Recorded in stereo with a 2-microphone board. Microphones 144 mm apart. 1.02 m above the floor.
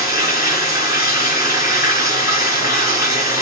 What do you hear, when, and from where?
0.0 s running water: 25° right (ahead or behind), 4 m